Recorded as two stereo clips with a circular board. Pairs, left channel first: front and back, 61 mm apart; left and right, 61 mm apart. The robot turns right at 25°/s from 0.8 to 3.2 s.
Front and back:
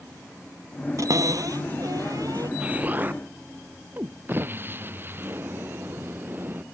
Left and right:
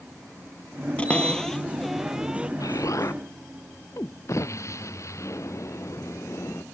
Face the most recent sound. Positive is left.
turn(degrees=125)